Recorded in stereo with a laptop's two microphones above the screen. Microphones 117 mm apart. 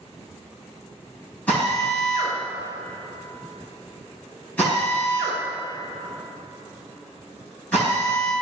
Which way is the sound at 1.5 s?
15° left (ahead or behind).